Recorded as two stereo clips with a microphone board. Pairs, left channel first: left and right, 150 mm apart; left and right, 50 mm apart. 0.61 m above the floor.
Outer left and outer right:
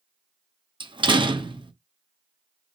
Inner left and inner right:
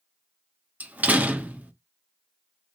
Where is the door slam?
35° right (ahead or behind), 0.7 m.